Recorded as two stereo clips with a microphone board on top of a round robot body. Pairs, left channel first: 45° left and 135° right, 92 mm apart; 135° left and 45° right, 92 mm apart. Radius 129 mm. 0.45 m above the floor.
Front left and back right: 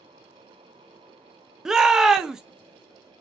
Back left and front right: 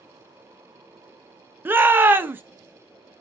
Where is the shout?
60° right, 0.8 m.